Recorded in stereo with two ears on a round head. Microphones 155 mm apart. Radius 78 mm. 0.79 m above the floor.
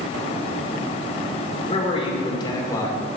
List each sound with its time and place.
1.7 s a man speaking: 35° left (ahead or behind), 2.5 m; by 3.0 s 15° left (ahead or behind), 2.5 m